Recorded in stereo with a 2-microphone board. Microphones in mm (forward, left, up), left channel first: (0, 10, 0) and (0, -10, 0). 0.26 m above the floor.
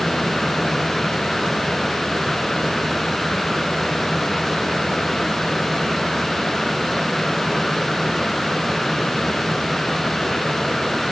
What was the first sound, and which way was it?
Only background noise.